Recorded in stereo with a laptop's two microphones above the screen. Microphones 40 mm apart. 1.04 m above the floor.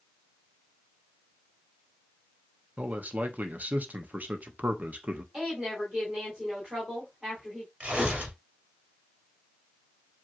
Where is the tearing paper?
30° right (ahead or behind), 2 m.